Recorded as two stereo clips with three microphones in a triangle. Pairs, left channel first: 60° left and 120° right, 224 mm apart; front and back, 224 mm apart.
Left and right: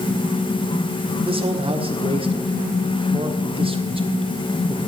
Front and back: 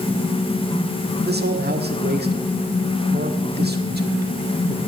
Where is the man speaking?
175° right, 1.5 m.